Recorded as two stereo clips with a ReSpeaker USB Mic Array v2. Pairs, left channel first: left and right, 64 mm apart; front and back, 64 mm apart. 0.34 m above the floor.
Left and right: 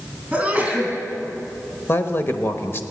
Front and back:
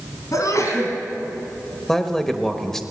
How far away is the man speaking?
About 1.0 m.